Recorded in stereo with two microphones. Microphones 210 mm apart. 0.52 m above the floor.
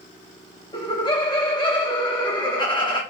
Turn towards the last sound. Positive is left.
turn(degrees=20)  # may be behind; listen again after turning